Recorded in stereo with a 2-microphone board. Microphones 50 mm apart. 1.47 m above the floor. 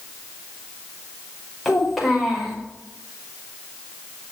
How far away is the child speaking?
About 5 m.